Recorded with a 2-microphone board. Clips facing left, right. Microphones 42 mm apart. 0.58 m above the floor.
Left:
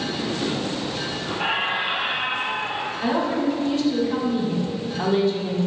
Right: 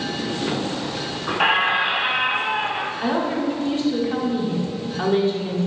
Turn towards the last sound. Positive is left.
turn(degrees=-30)  # may be behind; listen again after turning